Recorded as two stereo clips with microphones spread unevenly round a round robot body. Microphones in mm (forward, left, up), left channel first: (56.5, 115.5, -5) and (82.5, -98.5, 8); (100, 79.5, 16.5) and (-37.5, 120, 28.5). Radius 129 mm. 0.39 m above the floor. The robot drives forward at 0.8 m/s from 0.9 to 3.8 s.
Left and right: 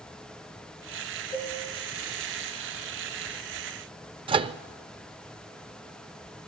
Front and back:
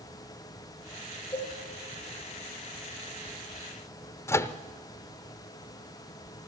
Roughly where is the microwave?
Ahead right.